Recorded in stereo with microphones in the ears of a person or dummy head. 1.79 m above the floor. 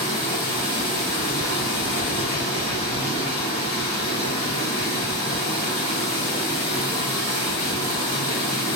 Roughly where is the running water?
Centre.